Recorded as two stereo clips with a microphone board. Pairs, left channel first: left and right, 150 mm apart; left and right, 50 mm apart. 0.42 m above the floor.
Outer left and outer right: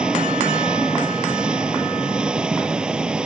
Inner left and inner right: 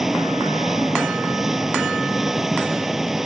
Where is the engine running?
5° right (ahead or behind).